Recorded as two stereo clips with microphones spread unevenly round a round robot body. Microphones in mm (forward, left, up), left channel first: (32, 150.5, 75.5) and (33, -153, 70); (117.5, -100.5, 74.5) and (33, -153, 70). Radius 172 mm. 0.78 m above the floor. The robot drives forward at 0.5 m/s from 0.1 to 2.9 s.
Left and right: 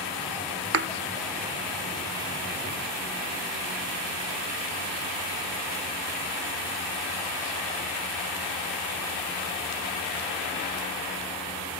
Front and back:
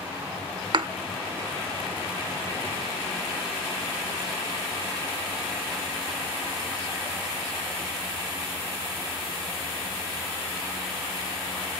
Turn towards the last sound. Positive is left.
turn(degrees=-170)